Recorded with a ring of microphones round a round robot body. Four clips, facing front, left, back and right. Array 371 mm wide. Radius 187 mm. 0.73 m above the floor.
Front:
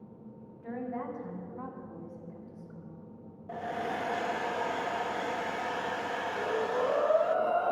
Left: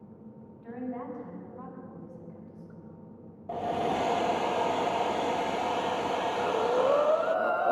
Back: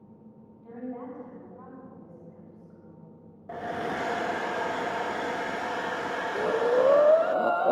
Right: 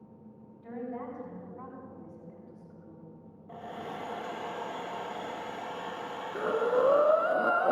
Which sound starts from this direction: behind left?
A hair dryer, at 3.5 s.